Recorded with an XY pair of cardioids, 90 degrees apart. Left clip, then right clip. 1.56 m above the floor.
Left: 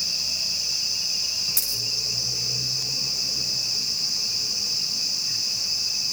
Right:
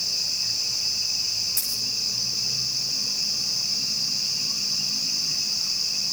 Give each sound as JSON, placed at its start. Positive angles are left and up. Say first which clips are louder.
{"t": 1.6, "sound": "a dropped coin", "louder": "left 1 dB", "azimuth_deg": 35, "distance_m": 6.5}